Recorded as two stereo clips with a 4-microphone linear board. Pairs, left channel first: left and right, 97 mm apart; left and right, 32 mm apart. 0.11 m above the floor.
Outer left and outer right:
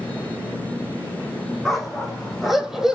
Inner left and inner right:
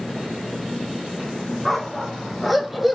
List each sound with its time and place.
1.6 s a dog barking: centre (ahead or behind), 2.5 m; by 3.0 s 5° right (ahead or behind), 1.4 m